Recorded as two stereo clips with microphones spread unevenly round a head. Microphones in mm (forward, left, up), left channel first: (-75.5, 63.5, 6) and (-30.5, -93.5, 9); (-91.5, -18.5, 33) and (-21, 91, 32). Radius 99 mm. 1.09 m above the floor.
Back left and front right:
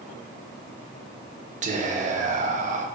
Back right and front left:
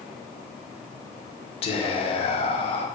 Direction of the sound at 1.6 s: 100° right.